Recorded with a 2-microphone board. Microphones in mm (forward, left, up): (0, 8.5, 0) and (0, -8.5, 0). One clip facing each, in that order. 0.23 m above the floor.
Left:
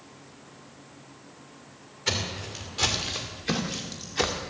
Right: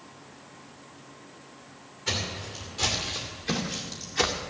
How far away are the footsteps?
About 3.5 m.